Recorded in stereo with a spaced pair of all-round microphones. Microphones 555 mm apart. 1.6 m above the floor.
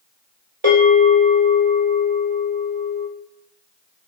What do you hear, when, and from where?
0.6 s a bell: 55° right (ahead or behind), 4 m